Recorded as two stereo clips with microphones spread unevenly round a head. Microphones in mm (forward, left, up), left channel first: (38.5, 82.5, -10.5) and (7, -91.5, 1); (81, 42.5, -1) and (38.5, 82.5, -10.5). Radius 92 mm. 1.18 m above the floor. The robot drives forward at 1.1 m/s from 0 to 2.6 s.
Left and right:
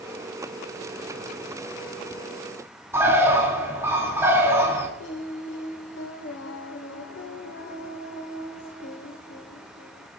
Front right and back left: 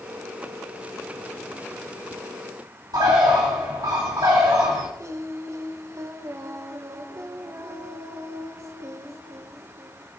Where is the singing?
105° left, 1.6 m.